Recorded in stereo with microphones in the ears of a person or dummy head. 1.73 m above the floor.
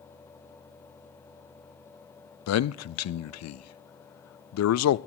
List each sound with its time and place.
2.5 s a man speaking: 85° left, 0.5 m